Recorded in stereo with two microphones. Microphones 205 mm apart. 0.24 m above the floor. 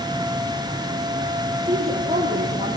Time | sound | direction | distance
1.6 | a woman speaking | 10° right (ahead or behind) | 6 m